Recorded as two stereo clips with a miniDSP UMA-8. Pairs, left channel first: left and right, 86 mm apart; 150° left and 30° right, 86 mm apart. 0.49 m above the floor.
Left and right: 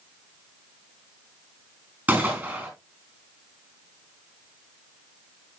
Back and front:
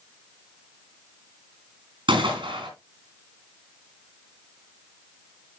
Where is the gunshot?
15° right, 4 m.